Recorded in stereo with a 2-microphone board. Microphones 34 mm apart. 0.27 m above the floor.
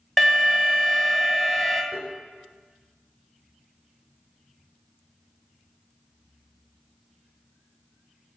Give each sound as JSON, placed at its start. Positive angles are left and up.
{"t": 0.2, "sound": "an alarm", "side_deg": -5, "distance_m": 1.7}
{"t": 1.9, "sound": "tapping", "side_deg": -10, "distance_m": 4.0}